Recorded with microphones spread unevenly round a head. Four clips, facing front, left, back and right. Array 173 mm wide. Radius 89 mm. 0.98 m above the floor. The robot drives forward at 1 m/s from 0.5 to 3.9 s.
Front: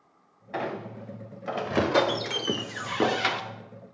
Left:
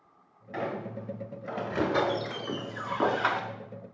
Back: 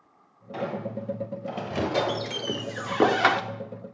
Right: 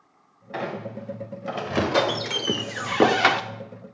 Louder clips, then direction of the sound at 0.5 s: Right 3 dB, back 2 dB; 15° right.